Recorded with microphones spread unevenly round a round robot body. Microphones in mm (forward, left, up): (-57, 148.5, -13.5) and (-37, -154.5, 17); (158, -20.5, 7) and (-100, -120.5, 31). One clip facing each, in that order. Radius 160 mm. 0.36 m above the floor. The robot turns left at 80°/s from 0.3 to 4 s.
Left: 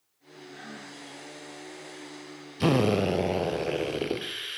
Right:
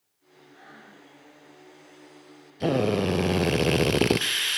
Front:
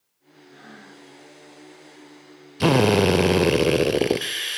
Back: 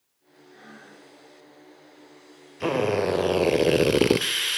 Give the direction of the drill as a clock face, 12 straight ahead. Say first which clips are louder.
Even, front 6 dB; 11 o'clock.